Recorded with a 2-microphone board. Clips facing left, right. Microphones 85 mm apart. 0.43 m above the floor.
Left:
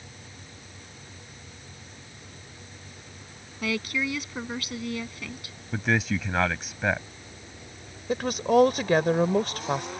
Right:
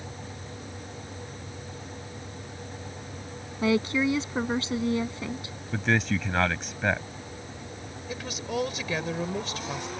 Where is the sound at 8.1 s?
55° left (ahead or behind).